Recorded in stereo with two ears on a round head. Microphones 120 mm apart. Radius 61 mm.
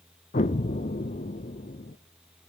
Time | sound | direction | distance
0.3 | an explosion | 55° left (ahead or behind) | 1.0 m